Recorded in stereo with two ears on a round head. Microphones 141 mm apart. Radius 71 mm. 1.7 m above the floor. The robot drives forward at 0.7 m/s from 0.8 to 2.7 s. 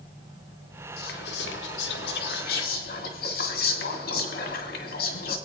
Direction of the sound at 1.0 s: 65° left (ahead or behind).